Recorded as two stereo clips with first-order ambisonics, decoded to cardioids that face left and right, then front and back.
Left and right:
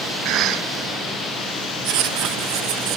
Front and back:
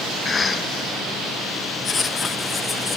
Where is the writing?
70° right, 0.7 m.